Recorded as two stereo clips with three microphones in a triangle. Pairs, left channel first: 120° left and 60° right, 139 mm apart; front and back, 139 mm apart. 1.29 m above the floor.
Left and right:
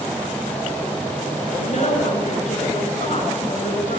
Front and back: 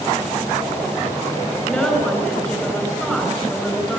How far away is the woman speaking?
About 7 m.